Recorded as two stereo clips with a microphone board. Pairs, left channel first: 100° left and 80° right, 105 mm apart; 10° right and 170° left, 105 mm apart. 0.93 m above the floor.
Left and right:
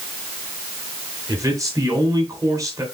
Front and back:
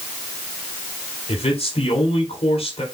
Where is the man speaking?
20° right, 4 m.